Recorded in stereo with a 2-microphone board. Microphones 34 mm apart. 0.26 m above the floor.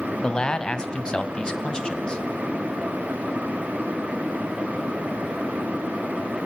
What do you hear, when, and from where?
0.2 s a man speaking: 25° left (ahead or behind), 1.7 m